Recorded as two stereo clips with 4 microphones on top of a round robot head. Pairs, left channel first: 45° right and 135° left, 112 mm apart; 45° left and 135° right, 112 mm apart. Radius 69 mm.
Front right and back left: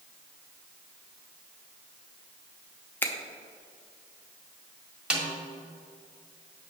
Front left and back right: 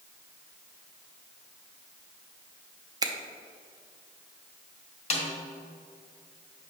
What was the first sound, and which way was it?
A finger snap, 110° right.